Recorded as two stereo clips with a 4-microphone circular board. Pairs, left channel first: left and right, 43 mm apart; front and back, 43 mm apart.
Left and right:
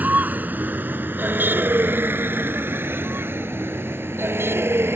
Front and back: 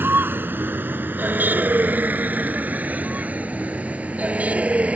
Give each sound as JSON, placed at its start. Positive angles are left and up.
{"t": 0.0, "sound": "a vehicle", "azimuth_deg": -140}